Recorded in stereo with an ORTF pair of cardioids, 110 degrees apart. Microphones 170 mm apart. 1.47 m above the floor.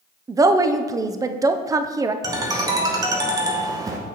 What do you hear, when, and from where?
0.3 s a woman speaking: 20° right, 0.5 m
2.2 s a ringtone: 20° right, 1.0 m